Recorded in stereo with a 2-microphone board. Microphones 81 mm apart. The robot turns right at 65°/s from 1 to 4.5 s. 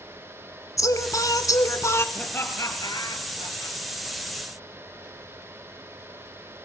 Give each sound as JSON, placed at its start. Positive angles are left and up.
{"t": 0.8, "sound": "singing", "azimuth_deg": 70, "distance_m": 1.5}
{"t": 2.1, "sound": "laughter", "side_deg": 15, "distance_m": 4.0}